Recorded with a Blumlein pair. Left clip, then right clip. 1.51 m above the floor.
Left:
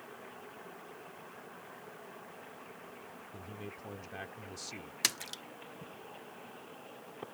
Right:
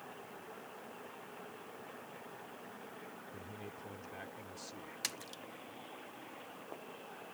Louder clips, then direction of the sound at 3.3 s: Left 2 dB; 10° left.